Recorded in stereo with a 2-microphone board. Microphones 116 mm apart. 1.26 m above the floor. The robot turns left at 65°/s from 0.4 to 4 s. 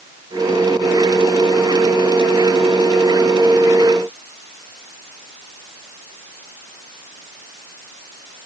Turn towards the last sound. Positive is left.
No sound to turn to.